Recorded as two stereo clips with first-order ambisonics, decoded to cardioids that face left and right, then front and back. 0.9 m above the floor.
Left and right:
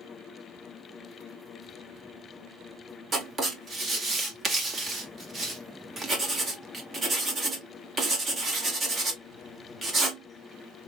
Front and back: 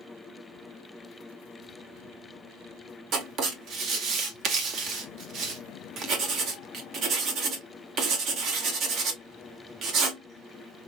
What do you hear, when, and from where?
3.1 s writing: 150° right, 1.2 m